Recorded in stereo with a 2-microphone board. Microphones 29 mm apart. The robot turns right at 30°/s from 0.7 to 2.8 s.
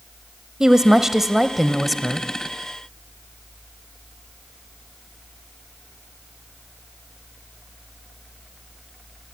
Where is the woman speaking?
40° right, 1.1 m; by 2.3 s 10° left, 1.1 m.